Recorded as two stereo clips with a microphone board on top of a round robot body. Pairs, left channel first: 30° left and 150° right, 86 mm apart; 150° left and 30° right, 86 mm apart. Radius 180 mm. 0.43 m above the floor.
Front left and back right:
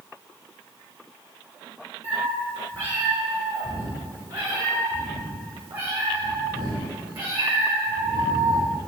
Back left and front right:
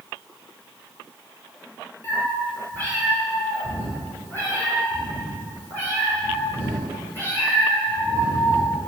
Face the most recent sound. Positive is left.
turn(degrees=-145)